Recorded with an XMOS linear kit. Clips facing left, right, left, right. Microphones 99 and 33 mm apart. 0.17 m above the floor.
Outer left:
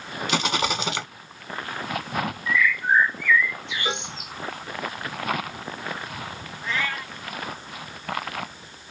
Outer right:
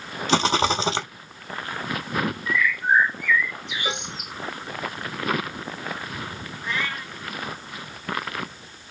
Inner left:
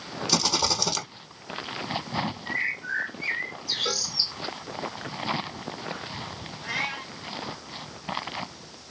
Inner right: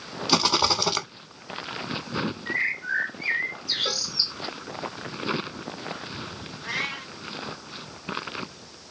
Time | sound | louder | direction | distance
0.3 | a rattle | outer right 5 dB, inner right 4 dB | 30° right (ahead or behind) | 0.7 m
2.5 | a bird | outer left 1 dB, inner right 4 dB | 15° right (ahead or behind) | 0.6 m
3.9 | a cowbell | outer left 1 dB, even | 10° right (ahead or behind) | 1.5 m
6.6 | a cat meowing | outer left 1 dB, even | 15° right (ahead or behind) | 1.8 m